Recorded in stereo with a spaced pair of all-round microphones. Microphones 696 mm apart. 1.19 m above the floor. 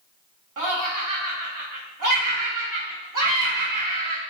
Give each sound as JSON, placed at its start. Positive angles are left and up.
{"t": 0.6, "sound": "laughter", "side_deg": -30, "distance_m": 0.6}